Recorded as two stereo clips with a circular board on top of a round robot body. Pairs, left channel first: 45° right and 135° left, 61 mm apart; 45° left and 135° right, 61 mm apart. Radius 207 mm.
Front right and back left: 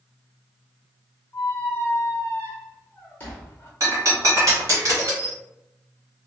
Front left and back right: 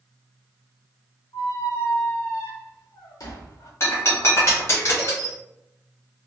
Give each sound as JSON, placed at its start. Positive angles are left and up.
{"t": 1.3, "sound": "a squeak", "azimuth_deg": 20, "distance_m": 0.6}
{"t": 3.8, "sound": "breaking glass", "azimuth_deg": 95, "distance_m": 1.3}